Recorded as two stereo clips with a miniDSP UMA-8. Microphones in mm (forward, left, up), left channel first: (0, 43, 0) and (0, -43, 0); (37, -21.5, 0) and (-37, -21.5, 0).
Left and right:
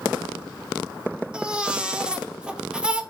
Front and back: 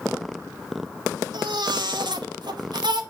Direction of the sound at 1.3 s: 170° right.